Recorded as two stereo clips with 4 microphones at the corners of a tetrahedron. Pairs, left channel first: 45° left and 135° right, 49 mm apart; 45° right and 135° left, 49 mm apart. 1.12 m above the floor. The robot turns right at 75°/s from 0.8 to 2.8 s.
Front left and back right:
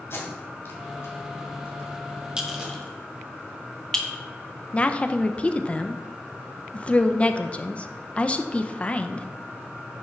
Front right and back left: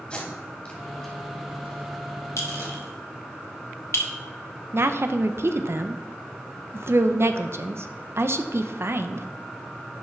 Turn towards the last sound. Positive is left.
turn(degrees=110)